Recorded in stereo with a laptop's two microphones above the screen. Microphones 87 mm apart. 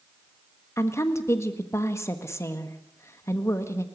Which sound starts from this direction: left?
A woman speaking, at 0.8 s.